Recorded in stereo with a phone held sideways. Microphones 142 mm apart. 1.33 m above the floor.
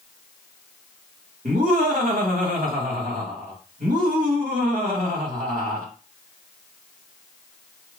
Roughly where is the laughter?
Right.